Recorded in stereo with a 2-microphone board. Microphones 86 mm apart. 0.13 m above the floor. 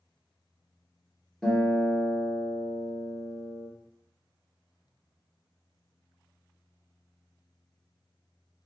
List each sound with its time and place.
1.4 s a guitar: 5° left (ahead or behind), 2 m